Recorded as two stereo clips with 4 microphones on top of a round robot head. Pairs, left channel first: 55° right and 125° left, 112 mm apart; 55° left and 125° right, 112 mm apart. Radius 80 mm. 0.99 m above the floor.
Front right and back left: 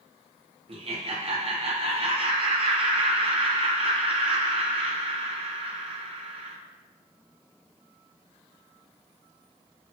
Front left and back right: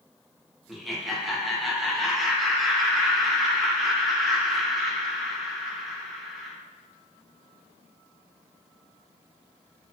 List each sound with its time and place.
0.7 s laughter: 145° left, 0.7 m